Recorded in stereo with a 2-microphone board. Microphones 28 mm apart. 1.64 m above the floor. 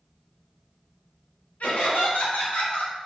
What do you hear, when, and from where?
1.6 s laughter: 80° left, 2.5 m; by 3.0 s 75° left (ahead or behind), 2 m